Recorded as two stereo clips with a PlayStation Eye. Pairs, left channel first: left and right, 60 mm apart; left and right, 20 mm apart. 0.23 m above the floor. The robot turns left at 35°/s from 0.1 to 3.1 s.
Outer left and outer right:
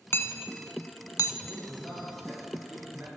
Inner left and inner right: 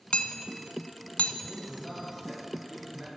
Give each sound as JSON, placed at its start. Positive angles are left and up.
{"t": 0.1, "sound": "hammering", "side_deg": 40, "distance_m": 0.5}
{"t": 1.4, "sound": "a man speaking", "azimuth_deg": 30, "distance_m": 4.0}